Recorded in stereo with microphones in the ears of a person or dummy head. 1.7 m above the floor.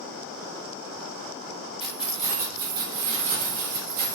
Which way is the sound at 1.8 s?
Centre (ahead or behind).